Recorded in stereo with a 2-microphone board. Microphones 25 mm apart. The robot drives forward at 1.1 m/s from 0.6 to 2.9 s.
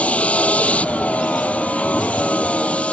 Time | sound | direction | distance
0.0 | a vehicle | 65° left (ahead or behind) | ?